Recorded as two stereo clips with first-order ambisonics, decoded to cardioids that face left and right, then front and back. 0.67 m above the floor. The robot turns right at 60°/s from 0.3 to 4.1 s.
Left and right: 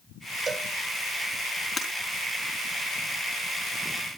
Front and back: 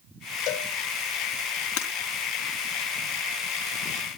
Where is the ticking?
No ticking in this recording.